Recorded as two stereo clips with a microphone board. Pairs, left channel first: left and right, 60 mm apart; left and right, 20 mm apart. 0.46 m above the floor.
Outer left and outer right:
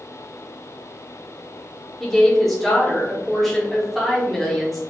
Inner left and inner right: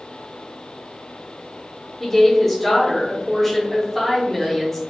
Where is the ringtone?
No ringtone in this recording.